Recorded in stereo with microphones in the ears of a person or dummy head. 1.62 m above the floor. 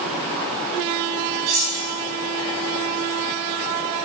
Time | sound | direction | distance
1.5 | cutlery clinking | 70° right (ahead or behind) | 2.5 m